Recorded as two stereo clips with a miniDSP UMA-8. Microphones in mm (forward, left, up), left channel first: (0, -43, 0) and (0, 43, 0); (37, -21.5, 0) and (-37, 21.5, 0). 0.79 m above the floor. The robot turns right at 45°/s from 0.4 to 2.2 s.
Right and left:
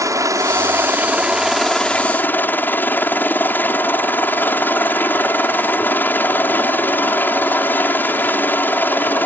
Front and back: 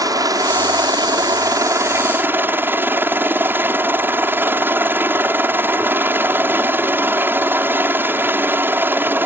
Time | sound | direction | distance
0.0 | a helicopter | 125° left | ?